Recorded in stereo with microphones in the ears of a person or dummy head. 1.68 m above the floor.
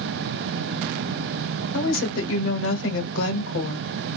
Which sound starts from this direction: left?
A woman speaking, at 1.7 s.